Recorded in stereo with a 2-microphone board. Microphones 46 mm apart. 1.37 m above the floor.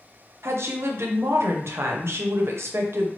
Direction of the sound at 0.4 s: 60° right (ahead or behind).